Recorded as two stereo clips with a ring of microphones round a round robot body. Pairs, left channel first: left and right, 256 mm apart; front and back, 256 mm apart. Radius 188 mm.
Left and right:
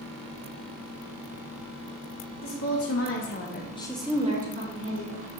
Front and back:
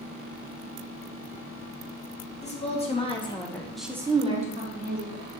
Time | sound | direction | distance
2.4 | a woman speaking | 65° left | 2 m